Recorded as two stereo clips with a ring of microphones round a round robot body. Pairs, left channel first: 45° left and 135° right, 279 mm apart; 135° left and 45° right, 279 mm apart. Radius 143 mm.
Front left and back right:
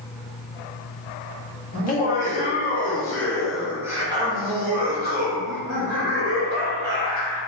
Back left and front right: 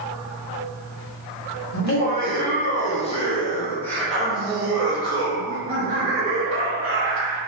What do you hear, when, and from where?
1.7 s laughter: 95° left, 1.4 m; by 7.4 s 100° right, 2 m